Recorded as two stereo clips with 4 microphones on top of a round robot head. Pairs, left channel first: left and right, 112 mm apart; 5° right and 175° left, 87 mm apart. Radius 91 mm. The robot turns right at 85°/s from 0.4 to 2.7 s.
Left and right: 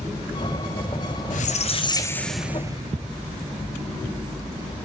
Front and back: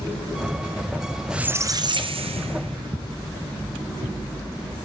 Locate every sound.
1.3 s a squeak: 90° left, 2 m; by 3.0 s 150° right, 2 m